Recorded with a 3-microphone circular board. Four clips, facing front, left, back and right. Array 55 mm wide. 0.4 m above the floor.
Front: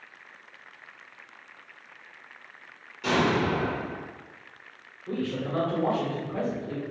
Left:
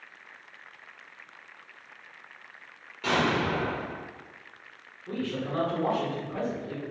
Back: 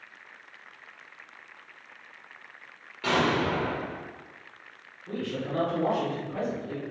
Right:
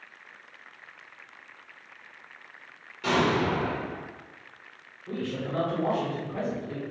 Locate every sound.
3.0 s an explosion: 170° left, 1.0 m
5.1 s a man speaking: 30° left, 1.0 m